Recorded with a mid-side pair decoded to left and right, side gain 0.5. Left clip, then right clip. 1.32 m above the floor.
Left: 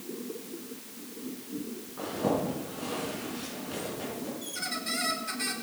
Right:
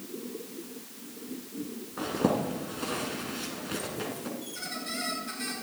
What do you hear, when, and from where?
2.0 s a zipper: 50° right, 5 m
4.4 s a squeak: 20° left, 7 m